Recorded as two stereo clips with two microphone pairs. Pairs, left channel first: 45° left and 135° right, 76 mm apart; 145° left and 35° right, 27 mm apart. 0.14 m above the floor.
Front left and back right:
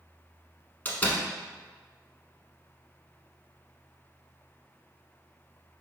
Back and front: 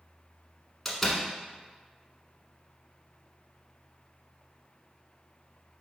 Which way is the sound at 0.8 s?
80° left.